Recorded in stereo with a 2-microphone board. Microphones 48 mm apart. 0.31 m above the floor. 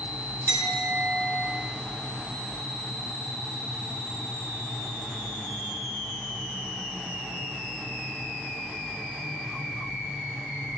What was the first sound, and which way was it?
A clink, 70° right (ahead or behind).